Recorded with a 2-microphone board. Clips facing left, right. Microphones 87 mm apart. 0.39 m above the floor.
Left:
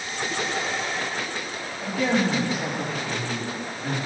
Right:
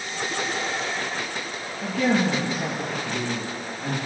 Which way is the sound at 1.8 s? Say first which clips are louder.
Right 1 dB; 60° right (ahead or behind).